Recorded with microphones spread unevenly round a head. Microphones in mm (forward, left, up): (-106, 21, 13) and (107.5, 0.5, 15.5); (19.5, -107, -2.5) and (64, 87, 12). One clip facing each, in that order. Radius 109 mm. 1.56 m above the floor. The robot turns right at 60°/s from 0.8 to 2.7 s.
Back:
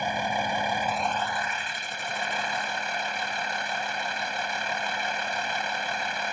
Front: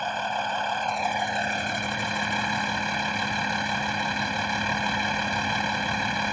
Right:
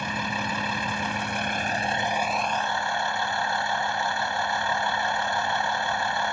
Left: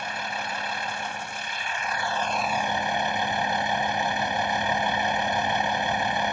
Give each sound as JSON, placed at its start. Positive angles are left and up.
{"t": 0.0, "sound": "a vehicle", "azimuth_deg": -105}